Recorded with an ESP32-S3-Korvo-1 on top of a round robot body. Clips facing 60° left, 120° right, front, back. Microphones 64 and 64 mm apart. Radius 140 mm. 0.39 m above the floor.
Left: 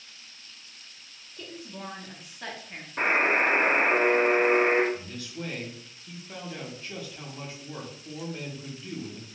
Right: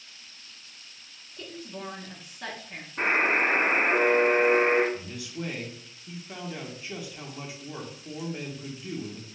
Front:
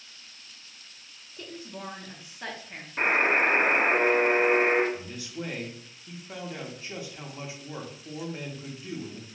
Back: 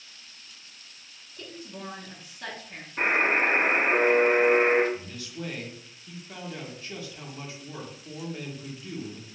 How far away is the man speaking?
About 1.0 m.